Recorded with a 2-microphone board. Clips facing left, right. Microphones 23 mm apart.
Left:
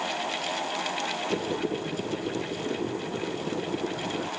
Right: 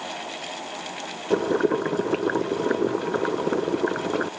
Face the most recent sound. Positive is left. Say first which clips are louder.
# right 7 dB
turn(degrees=-70)  # may be behind; listen again after turning